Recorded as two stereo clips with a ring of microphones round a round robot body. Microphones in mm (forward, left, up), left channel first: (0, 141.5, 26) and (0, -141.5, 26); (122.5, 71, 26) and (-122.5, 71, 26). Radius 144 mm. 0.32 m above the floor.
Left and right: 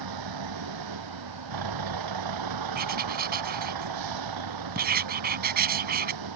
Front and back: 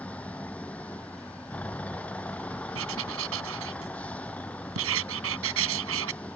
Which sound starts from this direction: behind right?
Writing, at 2.8 s.